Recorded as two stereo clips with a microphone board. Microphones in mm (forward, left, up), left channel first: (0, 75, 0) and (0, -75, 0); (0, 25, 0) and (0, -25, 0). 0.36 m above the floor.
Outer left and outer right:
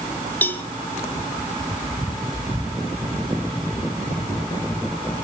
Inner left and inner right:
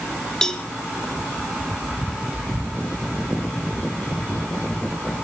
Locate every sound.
0.4 s a cowbell: 10° left (ahead or behind), 1.3 m